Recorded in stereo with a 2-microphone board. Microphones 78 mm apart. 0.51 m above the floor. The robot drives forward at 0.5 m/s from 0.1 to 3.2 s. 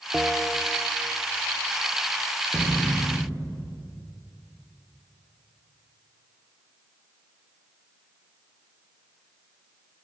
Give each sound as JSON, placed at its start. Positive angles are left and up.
{"t": 0.1, "sound": "a bell", "side_deg": -10, "distance_m": 0.5}
{"t": 2.5, "sound": "a thud", "side_deg": -55, "distance_m": 4.5}